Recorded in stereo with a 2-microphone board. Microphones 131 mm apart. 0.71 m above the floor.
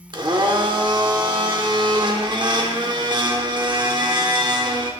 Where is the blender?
35° right (ahead or behind), 1.0 m.